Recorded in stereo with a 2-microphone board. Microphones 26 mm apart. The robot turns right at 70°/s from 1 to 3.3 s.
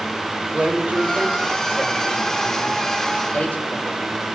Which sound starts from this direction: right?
A man speaking, at 0.5 s.